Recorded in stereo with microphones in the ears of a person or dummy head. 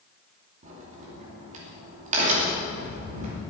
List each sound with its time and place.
0.6 s a crack: 45° right (ahead or behind), 2.5 m